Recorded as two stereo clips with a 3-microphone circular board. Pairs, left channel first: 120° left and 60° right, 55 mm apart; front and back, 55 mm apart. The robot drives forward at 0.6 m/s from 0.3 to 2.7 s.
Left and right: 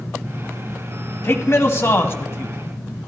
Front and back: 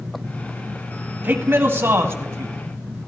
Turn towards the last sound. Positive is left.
turn(degrees=155)